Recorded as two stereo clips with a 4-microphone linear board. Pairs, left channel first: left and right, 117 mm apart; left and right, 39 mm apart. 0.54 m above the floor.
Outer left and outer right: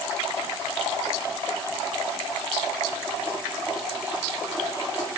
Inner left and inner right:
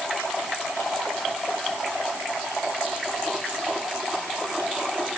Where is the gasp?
I don't hear a gasp.